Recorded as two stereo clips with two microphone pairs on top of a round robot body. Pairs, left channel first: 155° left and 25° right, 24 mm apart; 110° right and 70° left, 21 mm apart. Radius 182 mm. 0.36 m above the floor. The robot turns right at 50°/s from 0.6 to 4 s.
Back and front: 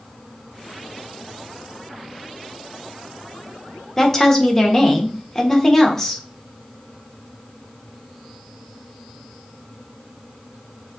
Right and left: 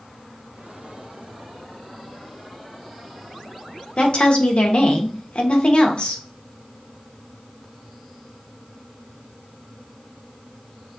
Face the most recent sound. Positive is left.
turn(degrees=-130)